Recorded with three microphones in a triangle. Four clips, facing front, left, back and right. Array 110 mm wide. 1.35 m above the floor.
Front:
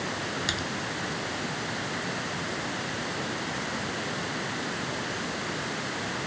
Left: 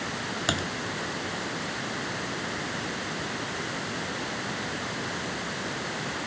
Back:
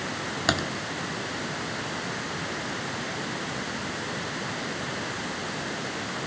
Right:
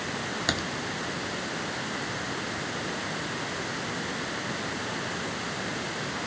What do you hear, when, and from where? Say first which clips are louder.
0.5 s typing on a keyboard: left 2 dB, back 7 dB; 165° left